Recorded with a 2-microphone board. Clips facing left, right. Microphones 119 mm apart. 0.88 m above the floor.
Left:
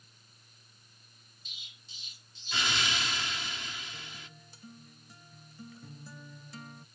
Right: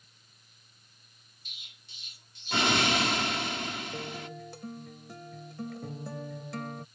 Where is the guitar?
75° right (ahead or behind).